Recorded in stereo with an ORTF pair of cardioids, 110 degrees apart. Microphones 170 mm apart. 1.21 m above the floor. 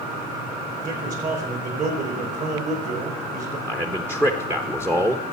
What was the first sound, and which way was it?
A man speaking, 55° right.